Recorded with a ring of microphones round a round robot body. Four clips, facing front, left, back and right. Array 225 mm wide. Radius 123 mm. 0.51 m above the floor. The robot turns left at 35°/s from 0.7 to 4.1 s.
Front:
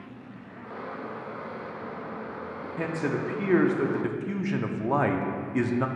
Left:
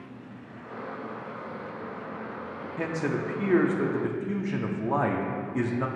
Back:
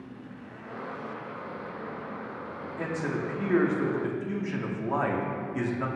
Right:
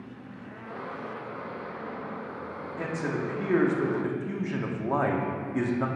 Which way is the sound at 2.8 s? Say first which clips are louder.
Left 2 dB, front 2 dB; 45° left.